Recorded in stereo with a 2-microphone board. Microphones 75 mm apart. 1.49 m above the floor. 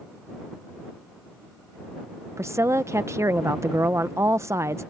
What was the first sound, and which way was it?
A woman speaking, 40° right (ahead or behind).